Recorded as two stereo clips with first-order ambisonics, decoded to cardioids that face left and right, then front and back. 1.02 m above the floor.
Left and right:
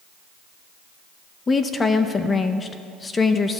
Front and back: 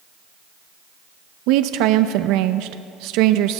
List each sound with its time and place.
1.5 s a woman speaking: 165° left, 0.6 m